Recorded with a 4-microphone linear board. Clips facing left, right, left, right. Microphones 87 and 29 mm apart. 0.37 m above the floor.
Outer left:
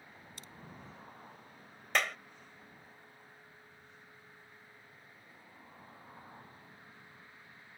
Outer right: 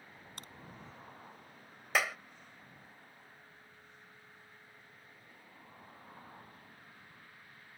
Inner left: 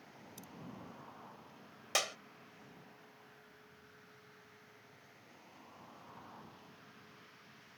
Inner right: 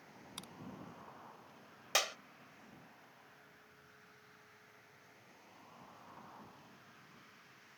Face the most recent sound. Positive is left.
turn(degrees=-5)  # may be behind; listen again after turning